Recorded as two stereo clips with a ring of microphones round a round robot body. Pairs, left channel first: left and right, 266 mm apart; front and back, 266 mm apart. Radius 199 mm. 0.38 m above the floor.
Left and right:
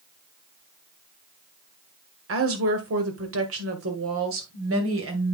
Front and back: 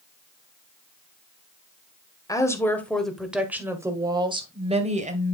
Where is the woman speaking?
75° right, 1.9 m; by 5.3 s 125° right, 2 m.